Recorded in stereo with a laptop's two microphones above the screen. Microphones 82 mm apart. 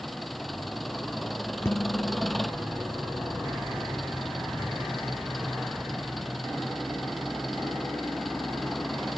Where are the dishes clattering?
35° left (ahead or behind).